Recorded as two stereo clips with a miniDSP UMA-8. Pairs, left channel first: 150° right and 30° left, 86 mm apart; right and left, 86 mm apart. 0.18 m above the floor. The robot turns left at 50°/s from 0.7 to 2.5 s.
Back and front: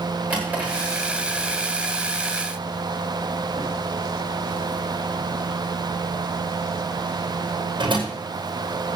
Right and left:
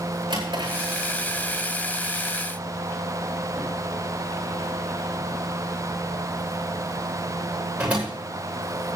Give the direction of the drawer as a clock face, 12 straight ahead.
9 o'clock.